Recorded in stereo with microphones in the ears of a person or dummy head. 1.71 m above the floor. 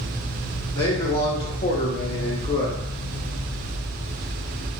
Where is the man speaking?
20° left (ahead or behind), 0.9 m; by 2.8 s 30° left (ahead or behind), 0.8 m.